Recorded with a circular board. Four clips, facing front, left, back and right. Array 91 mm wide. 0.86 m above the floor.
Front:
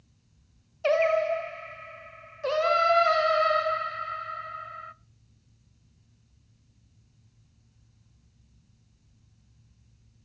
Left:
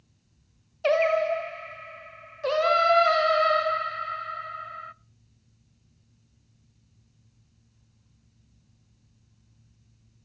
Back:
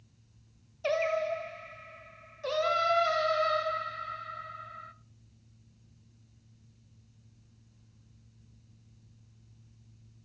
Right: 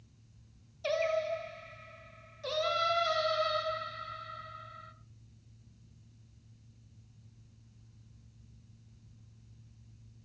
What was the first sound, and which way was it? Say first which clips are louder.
Singing: left 9 dB, front 6 dB; 60° left.